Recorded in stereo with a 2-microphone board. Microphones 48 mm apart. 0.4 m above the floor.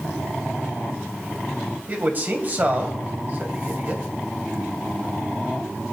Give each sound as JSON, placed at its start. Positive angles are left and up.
{"t": 1.9, "sound": "a man speaking", "side_deg": -35, "distance_m": 2.5}